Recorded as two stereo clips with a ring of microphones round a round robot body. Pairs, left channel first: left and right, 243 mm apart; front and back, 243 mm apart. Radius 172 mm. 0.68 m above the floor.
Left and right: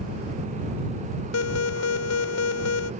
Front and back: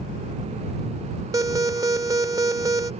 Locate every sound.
1.3 s an alarm: 105° left